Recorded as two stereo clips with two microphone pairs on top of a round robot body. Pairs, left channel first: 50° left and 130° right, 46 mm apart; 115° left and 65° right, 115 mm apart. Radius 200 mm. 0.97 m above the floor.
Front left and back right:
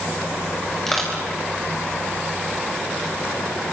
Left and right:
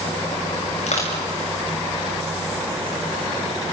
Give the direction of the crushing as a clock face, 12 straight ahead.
7 o'clock.